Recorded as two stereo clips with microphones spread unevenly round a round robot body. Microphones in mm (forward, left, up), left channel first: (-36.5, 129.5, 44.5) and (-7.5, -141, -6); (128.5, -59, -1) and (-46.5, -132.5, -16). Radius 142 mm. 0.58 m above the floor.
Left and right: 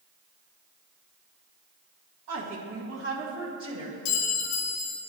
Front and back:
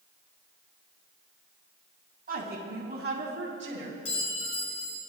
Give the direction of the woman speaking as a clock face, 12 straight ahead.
4 o'clock.